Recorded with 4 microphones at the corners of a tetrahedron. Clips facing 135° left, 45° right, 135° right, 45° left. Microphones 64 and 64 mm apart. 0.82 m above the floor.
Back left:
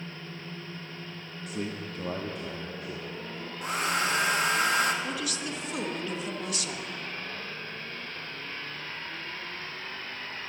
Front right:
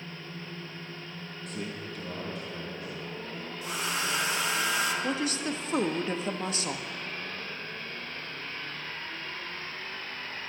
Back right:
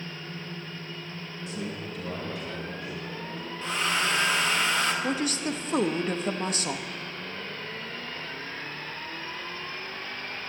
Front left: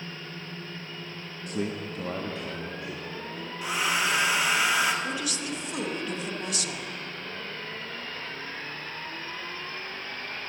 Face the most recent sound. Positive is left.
turn(degrees=-90)